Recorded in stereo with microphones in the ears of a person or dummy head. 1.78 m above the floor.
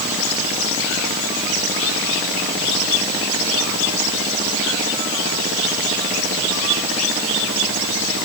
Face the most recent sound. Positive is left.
No sound to turn to.